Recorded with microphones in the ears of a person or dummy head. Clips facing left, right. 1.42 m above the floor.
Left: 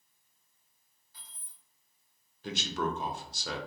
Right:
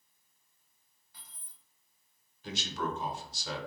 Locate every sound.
1.1 s keys jangling: 50° right (ahead or behind), 1.2 m
2.4 s a man speaking: 50° left (ahead or behind), 0.7 m